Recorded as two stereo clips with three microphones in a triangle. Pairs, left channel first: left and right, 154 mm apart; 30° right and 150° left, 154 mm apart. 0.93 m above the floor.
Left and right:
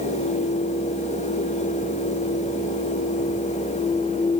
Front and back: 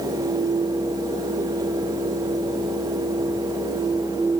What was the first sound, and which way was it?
Only background noise.